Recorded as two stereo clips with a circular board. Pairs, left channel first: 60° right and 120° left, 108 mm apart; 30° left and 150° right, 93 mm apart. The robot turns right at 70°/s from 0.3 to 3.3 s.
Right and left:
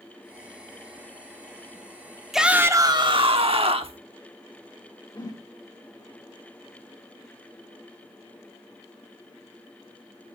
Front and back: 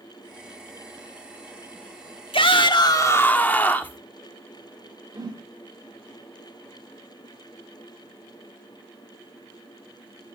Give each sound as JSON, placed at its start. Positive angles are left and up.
{"t": 2.3, "sound": "a shout", "azimuth_deg": 30, "distance_m": 1.1}
{"t": 5.2, "sound": "a whoosh", "azimuth_deg": -110, "distance_m": 1.4}